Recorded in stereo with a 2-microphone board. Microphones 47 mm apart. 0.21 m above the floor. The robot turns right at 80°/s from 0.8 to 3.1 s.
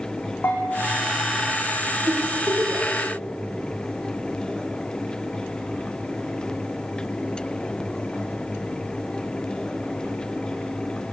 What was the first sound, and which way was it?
A bell, 45° left (ahead or behind).